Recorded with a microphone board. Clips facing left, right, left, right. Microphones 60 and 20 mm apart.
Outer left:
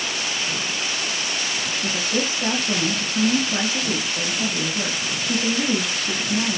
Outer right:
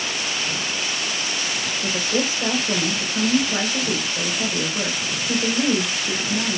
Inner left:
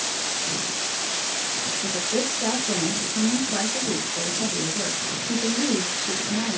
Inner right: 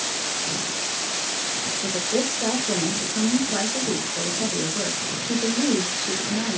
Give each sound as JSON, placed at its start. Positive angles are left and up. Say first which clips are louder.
{"t": 1.8, "sound": "a woman speaking", "louder": "outer right 2 dB, inner right 2 dB", "side_deg": -15, "distance_m": 1.7}